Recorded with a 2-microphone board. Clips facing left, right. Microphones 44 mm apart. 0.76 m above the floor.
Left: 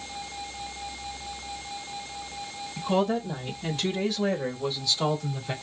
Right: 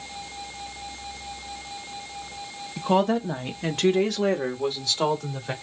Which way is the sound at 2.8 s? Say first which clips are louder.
Right 4 dB; 50° right (ahead or behind).